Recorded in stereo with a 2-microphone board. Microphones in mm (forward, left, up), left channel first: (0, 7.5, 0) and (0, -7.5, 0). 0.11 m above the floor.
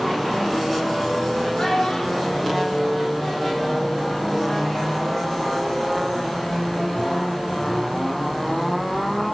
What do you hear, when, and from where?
1.6 s a child speaking: 40° left (ahead or behind), 2.0 m; by 3.8 s 10° left (ahead or behind), 2.5 m